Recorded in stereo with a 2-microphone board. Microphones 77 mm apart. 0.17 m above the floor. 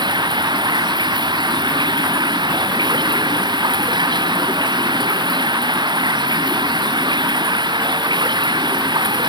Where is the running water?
80° right.